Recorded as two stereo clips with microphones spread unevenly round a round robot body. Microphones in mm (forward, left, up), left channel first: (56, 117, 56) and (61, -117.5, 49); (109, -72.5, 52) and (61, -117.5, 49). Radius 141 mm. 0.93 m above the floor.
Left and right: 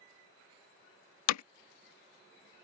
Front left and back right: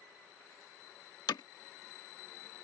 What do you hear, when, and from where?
1.3 s hammering: 80° left